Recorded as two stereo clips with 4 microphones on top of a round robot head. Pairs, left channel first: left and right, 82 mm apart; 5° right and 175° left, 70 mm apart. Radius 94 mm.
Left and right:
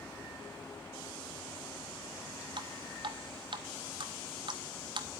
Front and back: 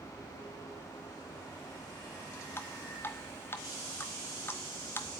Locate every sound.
2.6 s dripping: 65° right, 1.3 m